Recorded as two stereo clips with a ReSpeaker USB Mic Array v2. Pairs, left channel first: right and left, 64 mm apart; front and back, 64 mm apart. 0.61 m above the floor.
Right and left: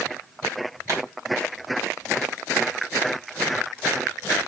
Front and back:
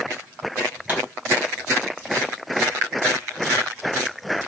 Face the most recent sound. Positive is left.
turn(degrees=120)